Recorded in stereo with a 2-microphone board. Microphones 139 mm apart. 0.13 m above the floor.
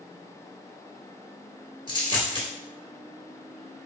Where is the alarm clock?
No alarm clock in this recording.